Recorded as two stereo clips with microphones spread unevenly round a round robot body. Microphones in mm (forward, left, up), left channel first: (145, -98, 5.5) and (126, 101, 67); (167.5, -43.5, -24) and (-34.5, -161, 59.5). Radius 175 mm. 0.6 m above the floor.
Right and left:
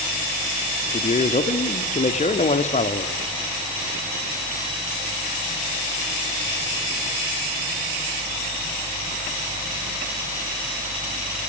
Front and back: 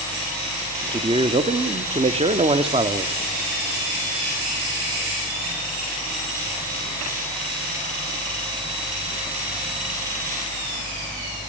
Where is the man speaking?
70° right, 1.5 m.